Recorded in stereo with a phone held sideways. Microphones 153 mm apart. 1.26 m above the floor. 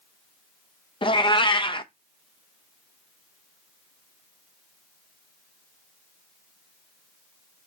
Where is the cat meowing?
30° left (ahead or behind), 0.5 m.